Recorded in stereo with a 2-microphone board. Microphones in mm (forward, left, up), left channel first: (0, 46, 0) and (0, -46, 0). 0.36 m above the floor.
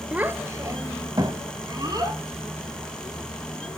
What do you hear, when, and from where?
0.1 s a child speaking: 15° right (ahead or behind), 0.5 m; by 2.2 s 50° right (ahead or behind), 1.8 m